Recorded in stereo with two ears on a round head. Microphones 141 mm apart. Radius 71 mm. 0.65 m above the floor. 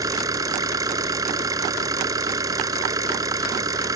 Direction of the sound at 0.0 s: 20° right (ahead or behind).